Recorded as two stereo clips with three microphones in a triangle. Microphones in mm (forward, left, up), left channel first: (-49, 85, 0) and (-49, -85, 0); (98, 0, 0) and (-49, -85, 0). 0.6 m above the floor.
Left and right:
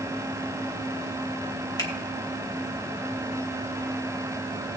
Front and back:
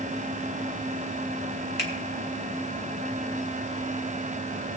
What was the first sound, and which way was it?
A finger snap, 25° left.